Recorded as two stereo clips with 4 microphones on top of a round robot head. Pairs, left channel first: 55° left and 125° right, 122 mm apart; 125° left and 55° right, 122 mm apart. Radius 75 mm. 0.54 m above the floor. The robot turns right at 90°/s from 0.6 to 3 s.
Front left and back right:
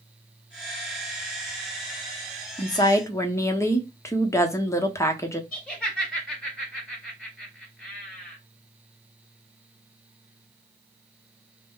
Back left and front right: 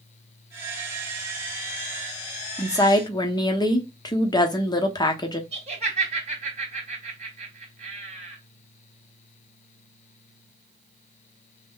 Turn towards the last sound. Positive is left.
turn(degrees=-30)